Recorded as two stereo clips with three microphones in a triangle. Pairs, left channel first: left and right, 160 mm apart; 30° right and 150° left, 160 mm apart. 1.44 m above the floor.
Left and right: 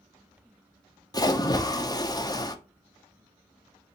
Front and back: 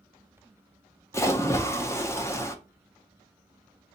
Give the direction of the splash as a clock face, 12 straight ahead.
11 o'clock.